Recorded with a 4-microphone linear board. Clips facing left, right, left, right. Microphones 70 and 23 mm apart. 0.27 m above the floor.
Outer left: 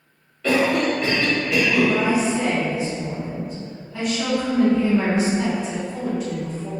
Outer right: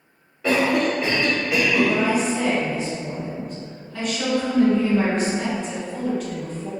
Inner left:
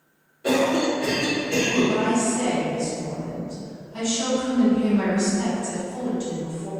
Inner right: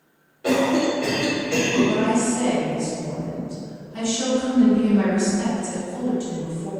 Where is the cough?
15° right (ahead or behind), 0.9 m.